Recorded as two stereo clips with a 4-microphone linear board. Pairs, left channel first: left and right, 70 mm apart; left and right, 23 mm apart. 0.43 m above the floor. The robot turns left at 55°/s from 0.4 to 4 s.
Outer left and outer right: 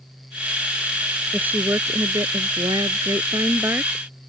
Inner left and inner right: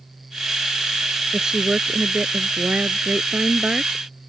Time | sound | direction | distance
1.3 | a woman speaking | 20° right | ?